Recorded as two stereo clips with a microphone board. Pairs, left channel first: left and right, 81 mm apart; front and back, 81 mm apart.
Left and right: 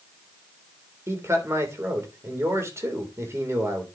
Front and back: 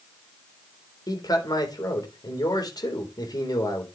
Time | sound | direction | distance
1.1 | a man speaking | 35° right | 3.5 m